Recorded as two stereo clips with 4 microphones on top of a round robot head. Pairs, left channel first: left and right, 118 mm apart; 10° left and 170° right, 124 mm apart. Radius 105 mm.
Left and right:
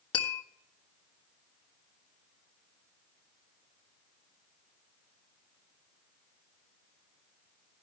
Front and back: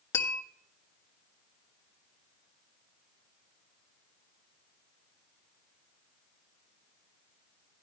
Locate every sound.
0.1 s tapping: 65° left, 1.3 m